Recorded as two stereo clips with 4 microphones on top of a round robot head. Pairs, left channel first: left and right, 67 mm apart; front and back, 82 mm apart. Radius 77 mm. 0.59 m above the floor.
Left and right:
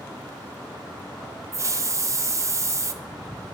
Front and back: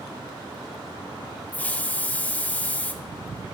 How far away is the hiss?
About 0.5 m.